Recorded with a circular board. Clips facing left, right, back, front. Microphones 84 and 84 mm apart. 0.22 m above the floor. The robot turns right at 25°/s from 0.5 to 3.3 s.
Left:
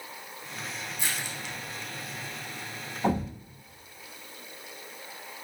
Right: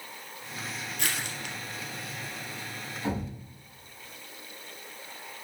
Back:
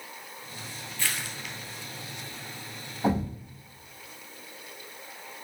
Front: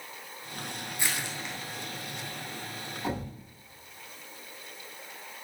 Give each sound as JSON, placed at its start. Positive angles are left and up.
{"t": 1.0, "sound": "crushing", "azimuth_deg": -70, "distance_m": 1.8}
{"t": 3.0, "sound": "a thud", "azimuth_deg": 130, "distance_m": 4.5}